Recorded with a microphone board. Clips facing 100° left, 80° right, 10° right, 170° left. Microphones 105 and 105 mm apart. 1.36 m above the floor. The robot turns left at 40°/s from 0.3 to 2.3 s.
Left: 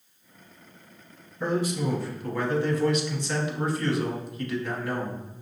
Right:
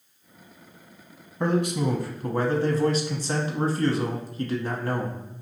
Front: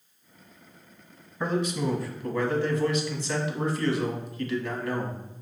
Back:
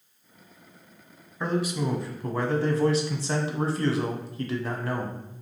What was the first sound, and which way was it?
A man speaking, 95° right.